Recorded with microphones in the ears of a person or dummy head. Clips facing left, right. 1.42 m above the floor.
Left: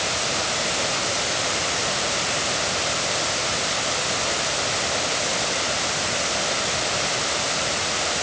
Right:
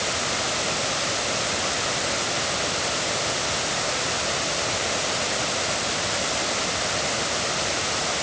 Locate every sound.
Only background noise.